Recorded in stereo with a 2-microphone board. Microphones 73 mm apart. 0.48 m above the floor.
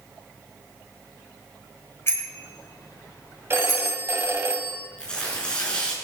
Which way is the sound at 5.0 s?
10° left (ahead or behind).